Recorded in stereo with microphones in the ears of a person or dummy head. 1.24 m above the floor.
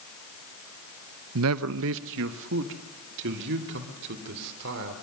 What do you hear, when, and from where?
1.4 s a man speaking: 75° right (ahead or behind), 0.7 m; by 4.9 s 60° right (ahead or behind), 4 m